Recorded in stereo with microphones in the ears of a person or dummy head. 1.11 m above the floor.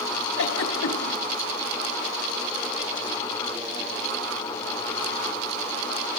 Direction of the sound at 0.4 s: 80° left.